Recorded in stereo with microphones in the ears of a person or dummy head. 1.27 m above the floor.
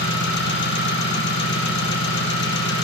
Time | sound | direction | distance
0.0 | an engine running | 60° left (ahead or behind) | 1.2 m